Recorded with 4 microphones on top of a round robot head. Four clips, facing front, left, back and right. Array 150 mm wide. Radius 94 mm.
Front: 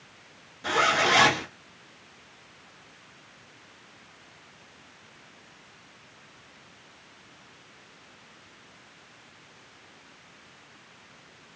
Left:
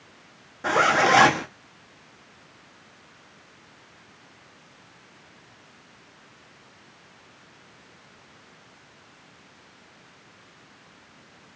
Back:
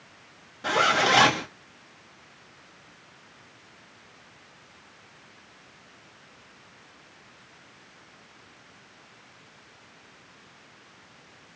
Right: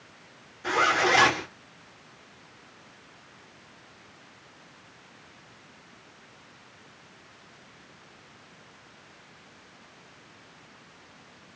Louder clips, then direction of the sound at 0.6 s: Left 4 dB, back 1 dB; 110° left.